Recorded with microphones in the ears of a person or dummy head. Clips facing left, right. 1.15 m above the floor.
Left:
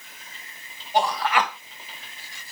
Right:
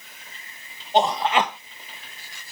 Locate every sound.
0.9 s a man speaking: 20° right (ahead or behind), 0.9 m